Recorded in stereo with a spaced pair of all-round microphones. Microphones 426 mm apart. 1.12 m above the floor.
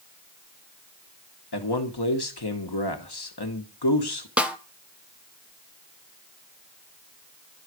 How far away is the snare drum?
About 0.6 m.